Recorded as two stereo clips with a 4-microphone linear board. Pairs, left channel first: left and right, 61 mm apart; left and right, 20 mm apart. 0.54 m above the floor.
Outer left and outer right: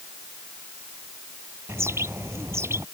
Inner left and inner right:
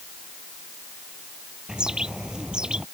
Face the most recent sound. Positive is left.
turn(degrees=-45)  # may be behind; listen again after turning